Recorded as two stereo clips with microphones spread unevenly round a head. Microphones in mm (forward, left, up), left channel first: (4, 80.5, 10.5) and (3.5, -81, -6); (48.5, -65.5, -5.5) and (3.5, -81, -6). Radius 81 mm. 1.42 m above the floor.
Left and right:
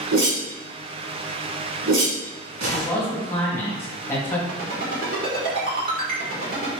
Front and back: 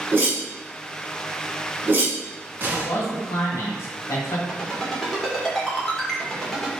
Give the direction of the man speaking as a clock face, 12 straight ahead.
12 o'clock.